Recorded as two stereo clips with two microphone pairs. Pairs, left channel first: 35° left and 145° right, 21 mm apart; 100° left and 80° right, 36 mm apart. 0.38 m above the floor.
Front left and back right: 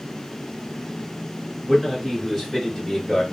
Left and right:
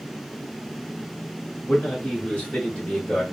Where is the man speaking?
140° left, 2 m; by 3.2 s 125° left, 1.5 m.